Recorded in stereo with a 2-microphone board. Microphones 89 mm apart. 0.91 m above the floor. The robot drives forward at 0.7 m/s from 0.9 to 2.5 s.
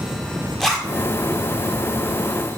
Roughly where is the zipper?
Centre.